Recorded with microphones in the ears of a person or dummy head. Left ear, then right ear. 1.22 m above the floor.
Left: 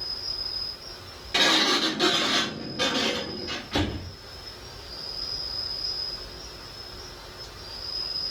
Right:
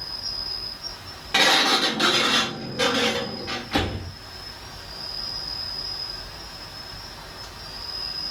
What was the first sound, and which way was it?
An insect, 50° right (ahead or behind).